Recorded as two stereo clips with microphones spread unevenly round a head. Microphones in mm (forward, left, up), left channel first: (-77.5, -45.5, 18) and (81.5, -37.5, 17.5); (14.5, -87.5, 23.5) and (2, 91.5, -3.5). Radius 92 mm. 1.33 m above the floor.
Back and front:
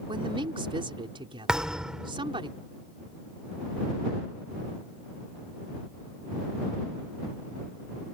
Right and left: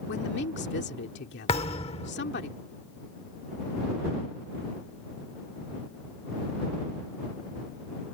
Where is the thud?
80° right.